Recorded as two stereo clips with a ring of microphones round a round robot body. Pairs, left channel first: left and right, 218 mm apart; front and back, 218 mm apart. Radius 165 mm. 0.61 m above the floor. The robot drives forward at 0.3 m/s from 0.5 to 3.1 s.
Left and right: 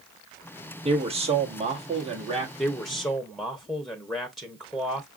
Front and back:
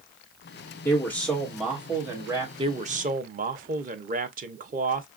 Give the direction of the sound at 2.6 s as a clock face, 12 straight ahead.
6 o'clock.